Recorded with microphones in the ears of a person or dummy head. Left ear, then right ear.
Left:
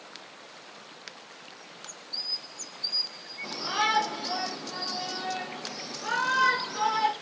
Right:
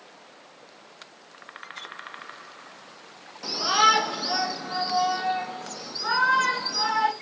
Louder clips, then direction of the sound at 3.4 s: Right 8 dB; 60° right (ahead or behind).